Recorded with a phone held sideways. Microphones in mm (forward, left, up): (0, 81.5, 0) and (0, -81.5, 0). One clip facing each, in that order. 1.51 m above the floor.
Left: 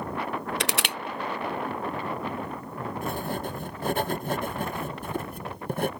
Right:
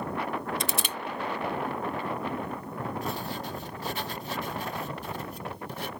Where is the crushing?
75° left (ahead or behind).